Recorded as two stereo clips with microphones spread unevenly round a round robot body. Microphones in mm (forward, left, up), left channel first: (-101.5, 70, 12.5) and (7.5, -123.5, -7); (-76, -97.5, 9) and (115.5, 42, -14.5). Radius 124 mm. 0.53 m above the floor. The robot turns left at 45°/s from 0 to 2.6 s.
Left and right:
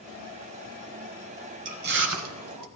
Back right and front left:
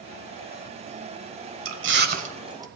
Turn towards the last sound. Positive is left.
turn(degrees=-40)